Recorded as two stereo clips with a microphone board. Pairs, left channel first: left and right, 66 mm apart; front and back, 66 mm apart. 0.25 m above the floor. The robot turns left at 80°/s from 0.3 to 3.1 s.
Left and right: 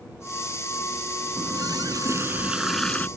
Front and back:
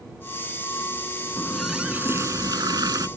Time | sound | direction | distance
1.4 | a running tap | 70° right | ?